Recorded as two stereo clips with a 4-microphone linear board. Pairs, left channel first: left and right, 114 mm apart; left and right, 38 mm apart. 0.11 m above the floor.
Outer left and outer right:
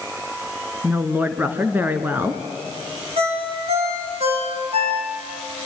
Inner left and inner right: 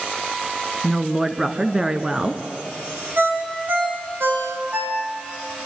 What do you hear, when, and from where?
0.8 s a woman speaking: 15° right (ahead or behind), 1.1 m
3.2 s a ringtone: 65° right (ahead or behind), 5 m